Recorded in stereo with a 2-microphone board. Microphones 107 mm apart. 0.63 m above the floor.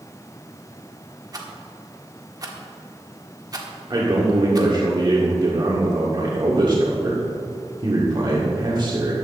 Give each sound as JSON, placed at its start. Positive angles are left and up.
{"t": 1.3, "sound": "a rattle", "side_deg": -35, "distance_m": 1.5}
{"t": 3.9, "sound": "a man speaking", "side_deg": -45, "distance_m": 1.9}